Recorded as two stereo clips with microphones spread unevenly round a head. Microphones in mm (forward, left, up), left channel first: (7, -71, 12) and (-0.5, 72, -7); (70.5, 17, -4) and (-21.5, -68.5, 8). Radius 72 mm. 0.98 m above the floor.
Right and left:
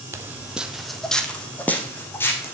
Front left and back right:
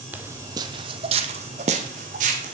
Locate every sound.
0.1 s footsteps: 165° left, 1.1 m; by 2.5 s 155° right, 2.5 m